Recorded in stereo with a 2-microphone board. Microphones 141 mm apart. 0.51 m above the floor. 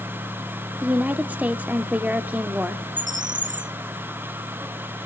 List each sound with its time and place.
0.8 s a woman speaking: 10° right (ahead or behind), 0.9 m
3.0 s a bird: 60° right (ahead or behind), 1.0 m